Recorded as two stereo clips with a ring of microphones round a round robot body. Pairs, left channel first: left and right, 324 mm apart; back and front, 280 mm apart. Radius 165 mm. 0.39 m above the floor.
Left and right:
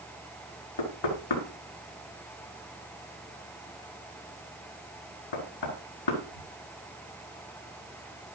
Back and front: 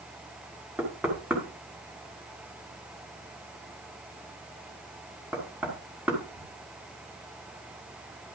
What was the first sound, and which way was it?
Knocking, 85° left.